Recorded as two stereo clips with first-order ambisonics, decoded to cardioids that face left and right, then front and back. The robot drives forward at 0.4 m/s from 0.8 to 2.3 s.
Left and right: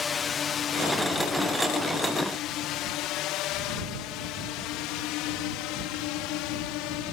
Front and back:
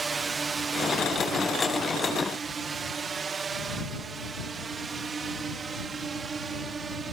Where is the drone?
130° left; by 7.1 s 110° left.